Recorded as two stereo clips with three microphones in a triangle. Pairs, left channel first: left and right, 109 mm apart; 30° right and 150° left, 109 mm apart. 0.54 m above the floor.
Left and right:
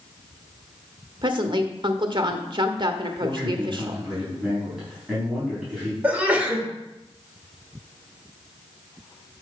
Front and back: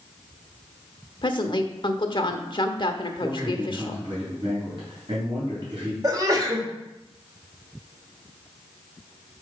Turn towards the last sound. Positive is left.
turn(degrees=-165)